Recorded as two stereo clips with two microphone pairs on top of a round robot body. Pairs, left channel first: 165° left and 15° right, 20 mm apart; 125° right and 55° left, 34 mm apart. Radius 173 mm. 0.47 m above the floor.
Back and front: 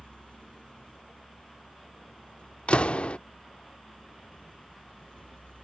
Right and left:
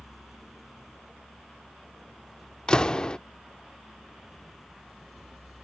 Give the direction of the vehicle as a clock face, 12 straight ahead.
7 o'clock.